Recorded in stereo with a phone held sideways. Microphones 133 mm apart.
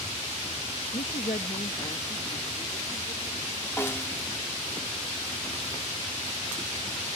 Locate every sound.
0.9 s a woman speaking: 65° left (ahead or behind); by 3.5 s 85° left
3.8 s a snare drum: 20° left (ahead or behind)